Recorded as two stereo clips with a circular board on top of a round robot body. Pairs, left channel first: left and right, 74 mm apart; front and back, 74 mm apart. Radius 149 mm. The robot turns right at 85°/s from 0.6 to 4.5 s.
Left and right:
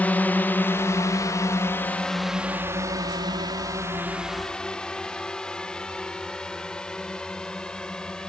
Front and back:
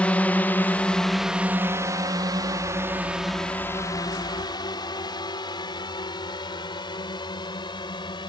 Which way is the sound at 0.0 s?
50° left.